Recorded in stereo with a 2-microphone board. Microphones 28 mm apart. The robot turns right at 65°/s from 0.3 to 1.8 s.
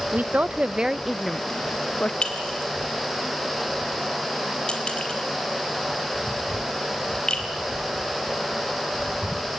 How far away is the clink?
About 3 m.